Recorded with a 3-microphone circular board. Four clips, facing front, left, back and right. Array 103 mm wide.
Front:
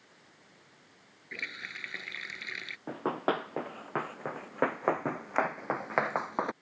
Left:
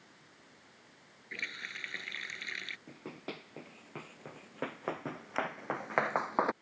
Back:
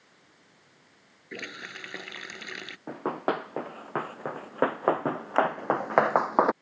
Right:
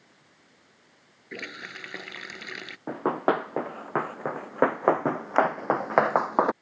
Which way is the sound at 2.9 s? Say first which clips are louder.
Right 23 dB, back 2 dB; 100° right.